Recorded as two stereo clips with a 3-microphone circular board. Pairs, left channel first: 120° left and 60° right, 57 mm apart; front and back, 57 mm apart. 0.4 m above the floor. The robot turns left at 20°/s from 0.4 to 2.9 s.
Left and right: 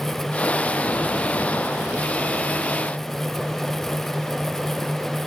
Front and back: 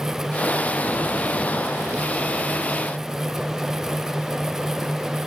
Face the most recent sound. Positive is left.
No sound to turn to.